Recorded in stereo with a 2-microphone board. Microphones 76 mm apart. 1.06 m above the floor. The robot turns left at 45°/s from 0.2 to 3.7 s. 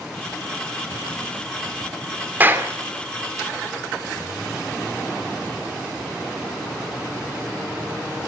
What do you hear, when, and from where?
2.4 s a clap: 25° right (ahead or behind), 2.5 m; by 2.7 s 35° right (ahead or behind), 2.5 m